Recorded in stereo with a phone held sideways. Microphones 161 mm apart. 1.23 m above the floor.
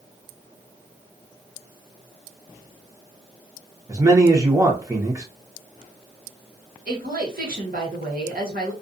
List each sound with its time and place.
3.9 s a man speaking: 20° right (ahead or behind), 0.8 m
6.9 s a woman speaking: 75° right (ahead or behind), 1.2 m